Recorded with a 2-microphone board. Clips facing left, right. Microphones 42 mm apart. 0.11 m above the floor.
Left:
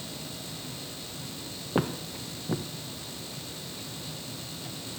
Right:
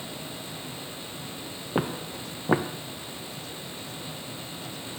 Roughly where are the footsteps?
Centre.